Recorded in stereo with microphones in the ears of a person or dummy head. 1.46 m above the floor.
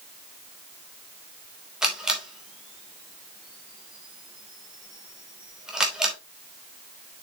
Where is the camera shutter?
5° right (ahead or behind), 2.5 m.